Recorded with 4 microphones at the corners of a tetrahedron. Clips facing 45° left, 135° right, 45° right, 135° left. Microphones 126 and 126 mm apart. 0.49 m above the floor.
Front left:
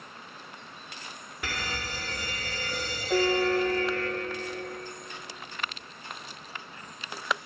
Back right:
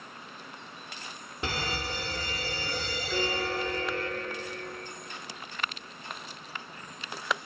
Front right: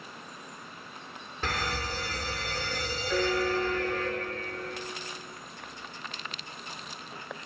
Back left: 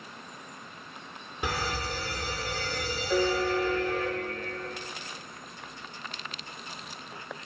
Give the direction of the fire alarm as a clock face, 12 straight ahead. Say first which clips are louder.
Back right 3 dB, back left 1 dB; 5 o'clock.